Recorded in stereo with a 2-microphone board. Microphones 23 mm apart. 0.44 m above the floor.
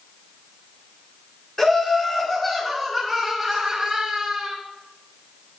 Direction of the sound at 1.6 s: 25° left (ahead or behind).